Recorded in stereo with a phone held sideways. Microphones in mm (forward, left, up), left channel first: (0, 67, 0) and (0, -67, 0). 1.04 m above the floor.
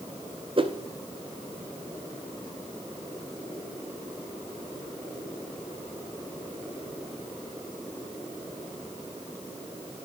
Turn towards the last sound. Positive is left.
turn(degrees=-40)  # may be behind; listen again after turning